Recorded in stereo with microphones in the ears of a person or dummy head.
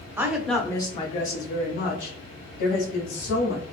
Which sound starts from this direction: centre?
A woman speaking, at 0.2 s.